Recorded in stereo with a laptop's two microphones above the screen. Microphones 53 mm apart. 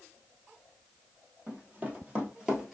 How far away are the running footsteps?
About 1.8 m.